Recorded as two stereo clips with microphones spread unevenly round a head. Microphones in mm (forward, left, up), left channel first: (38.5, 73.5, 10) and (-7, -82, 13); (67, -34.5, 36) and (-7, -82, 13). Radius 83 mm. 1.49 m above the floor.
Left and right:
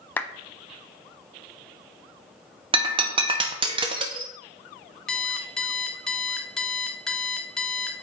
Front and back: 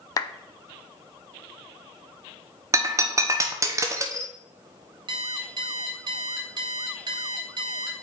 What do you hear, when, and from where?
0.2 s a clap: 5° right, 0.6 m
2.7 s breaking glass: 100° right, 0.9 m
5.1 s an alarm clock: 160° left, 0.6 m